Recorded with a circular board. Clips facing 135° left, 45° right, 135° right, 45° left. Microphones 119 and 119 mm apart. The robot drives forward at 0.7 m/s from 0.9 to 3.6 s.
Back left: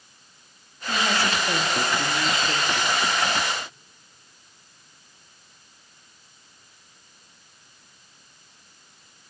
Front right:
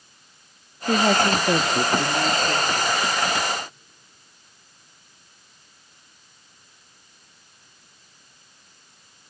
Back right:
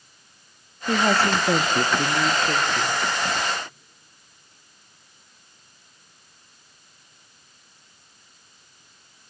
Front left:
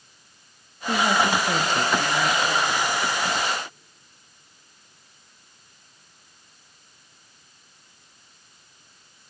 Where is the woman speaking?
65° right, 1.0 m; by 3.0 s 140° right, 1.4 m.